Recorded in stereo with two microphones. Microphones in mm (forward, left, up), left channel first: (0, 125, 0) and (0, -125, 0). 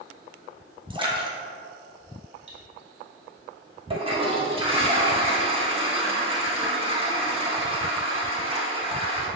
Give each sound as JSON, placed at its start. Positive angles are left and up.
{"t": 0.9, "sound": "a splash", "side_deg": -20, "distance_m": 1.2}
{"t": 2.5, "sound": "cutlery clinking", "side_deg": -55, "distance_m": 2.0}
{"t": 3.9, "sound": "a toilet flushing", "side_deg": -25, "distance_m": 1.3}